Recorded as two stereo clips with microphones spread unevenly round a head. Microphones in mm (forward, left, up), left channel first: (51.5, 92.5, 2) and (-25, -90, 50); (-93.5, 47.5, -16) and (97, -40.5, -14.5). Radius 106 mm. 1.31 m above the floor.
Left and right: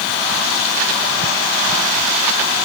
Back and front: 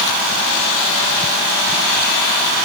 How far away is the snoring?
I don't hear snoring.